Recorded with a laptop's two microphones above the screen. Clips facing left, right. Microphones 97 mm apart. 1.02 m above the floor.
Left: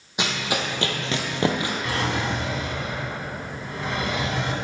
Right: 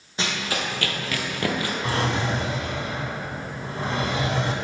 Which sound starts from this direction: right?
A drawer, at 1.8 s.